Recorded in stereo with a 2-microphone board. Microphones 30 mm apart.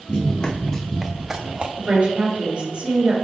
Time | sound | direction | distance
0.1 | running footsteps | 40° left (ahead or behind) | 1.0 m
1.8 | a woman speaking | 40° right (ahead or behind) | 1.9 m